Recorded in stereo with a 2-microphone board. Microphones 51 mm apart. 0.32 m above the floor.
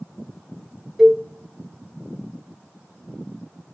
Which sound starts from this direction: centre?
A cowbell, at 1.0 s.